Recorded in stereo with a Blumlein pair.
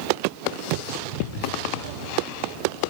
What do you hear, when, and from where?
1.2 s whispering: 55° left, 1.9 m